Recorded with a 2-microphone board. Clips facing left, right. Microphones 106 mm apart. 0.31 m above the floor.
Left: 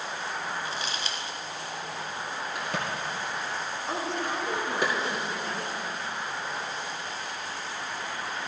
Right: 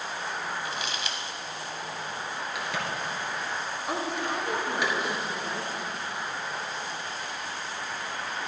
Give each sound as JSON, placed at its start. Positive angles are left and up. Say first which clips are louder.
{"t": 0.7, "sound": "crumpling", "louder": "even", "side_deg": 35, "distance_m": 1.1}
{"t": 2.5, "sound": "a crack", "louder": "even", "side_deg": 40, "distance_m": 2.5}
{"t": 3.9, "sound": "a woman speaking", "louder": "right 1 dB", "side_deg": -15, "distance_m": 3.5}